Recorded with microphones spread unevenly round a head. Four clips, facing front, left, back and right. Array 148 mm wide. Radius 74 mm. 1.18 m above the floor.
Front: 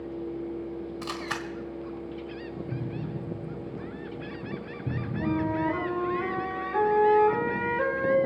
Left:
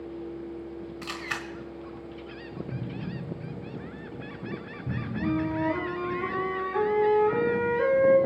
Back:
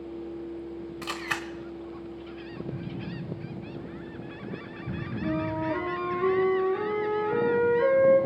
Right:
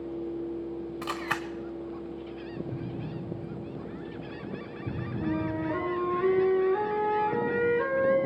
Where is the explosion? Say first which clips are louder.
Even, front 2 dB; 5° right, 9 m.